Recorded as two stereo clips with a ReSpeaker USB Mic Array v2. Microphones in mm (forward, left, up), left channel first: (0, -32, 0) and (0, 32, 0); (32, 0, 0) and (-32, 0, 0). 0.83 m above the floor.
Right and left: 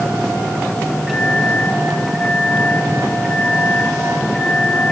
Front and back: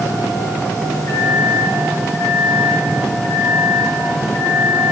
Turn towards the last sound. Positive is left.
turn(degrees=5)